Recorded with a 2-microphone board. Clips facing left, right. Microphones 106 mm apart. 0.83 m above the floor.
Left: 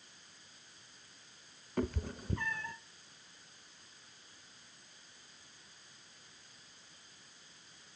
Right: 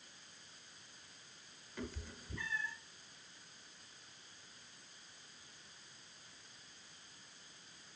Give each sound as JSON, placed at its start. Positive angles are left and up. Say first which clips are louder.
{"t": 1.8, "sound": "a cat meowing", "louder": "left 11 dB", "side_deg": 55, "distance_m": 0.7}